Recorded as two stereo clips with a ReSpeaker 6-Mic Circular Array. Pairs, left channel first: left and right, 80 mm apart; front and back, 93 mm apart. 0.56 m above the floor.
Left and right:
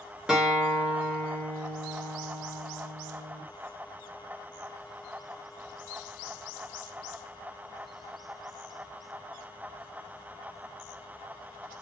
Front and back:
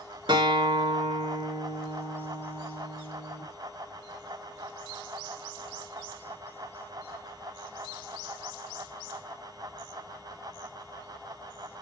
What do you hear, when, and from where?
0.3 s a guitar: 170° right, 2 m